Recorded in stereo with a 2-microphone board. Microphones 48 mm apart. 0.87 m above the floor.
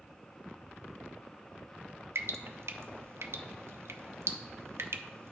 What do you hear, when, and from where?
2.1 s dripping: 65° right (ahead or behind), 0.5 m